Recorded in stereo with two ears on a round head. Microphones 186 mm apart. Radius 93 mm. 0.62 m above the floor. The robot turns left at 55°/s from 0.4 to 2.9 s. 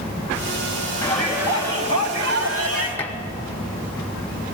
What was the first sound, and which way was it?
A shout, 10° left.